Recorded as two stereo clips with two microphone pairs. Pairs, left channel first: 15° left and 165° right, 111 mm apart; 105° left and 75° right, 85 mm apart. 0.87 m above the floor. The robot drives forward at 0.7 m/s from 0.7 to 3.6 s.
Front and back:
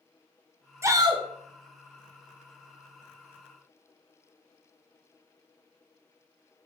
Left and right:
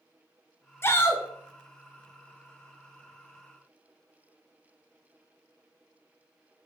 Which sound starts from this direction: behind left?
A shout, at 0.8 s.